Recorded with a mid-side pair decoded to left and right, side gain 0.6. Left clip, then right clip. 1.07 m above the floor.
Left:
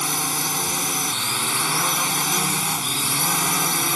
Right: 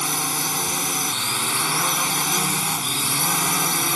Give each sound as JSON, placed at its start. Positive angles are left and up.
{"t": 0.0, "sound": "a drone", "azimuth_deg": 0}